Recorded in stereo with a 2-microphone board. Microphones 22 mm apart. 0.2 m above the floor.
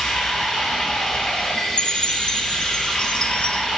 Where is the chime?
55° left (ahead or behind), 0.6 m.